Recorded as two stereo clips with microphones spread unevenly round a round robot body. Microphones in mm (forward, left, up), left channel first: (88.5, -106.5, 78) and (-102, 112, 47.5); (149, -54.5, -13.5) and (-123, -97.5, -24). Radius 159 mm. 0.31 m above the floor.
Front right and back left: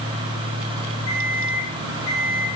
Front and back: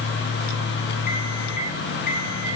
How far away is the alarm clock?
About 6.5 m.